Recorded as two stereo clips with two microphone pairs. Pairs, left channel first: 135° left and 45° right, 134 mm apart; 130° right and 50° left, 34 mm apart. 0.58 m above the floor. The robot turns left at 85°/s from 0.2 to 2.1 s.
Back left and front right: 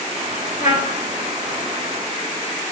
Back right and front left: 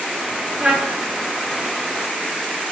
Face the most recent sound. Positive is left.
turn(degrees=-5)